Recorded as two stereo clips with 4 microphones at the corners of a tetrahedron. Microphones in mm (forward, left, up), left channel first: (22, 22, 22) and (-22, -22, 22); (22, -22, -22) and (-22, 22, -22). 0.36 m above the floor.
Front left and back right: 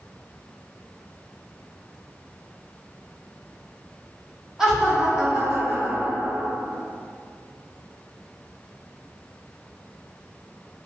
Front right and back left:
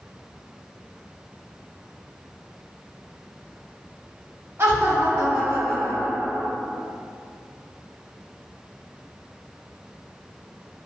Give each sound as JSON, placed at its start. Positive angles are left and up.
{"t": 4.6, "sound": "laughter", "azimuth_deg": 155, "distance_m": 1.3}